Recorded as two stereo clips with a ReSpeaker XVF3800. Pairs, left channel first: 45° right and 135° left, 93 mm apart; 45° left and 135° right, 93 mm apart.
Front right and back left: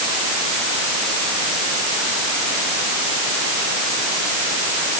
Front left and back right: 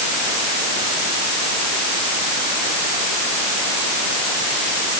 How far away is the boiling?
I don't hear boiling.